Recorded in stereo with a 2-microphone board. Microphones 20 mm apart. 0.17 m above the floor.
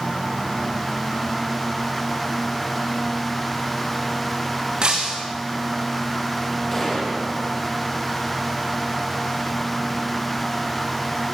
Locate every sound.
4.8 s breaking glass: 40° right (ahead or behind), 4 m
6.7 s a gunshot: 15° left (ahead or behind), 6.5 m